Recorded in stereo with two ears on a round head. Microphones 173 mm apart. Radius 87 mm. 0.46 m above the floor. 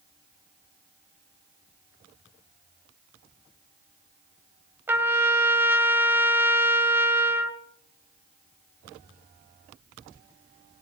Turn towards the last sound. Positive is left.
turn(degrees=-10)  # may be behind; listen again after turning